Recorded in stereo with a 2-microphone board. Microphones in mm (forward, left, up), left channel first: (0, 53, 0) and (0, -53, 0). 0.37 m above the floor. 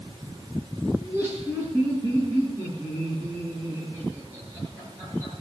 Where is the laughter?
15° right (ahead or behind), 6 m; by 5.3 s 20° right (ahead or behind), 8 m.